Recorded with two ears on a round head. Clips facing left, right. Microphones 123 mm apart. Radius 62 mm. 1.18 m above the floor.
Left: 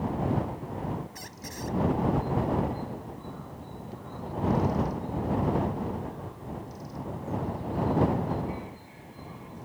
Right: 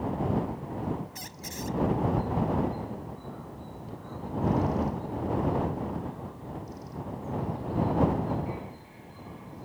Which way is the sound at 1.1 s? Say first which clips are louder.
Even; 30° right (ahead or behind).